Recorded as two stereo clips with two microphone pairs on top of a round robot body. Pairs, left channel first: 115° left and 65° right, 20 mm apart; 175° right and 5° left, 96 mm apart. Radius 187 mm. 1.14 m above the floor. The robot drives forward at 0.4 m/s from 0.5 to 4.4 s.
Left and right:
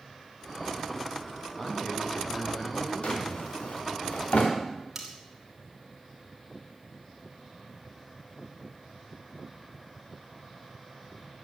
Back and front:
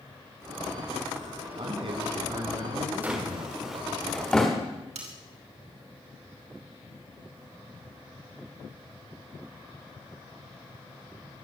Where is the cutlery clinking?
5° left, 3 m.